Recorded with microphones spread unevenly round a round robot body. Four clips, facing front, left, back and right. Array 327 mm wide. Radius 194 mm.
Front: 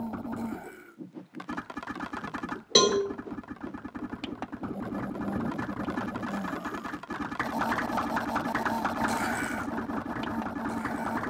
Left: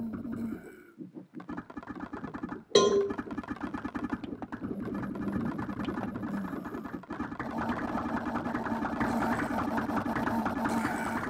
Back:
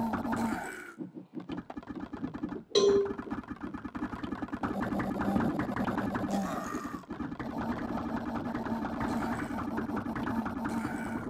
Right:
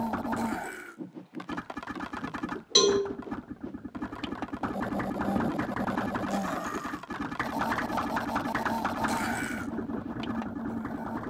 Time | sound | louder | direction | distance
2.8 | a cowbell | left 2 dB, even | 35° left | 3.5 m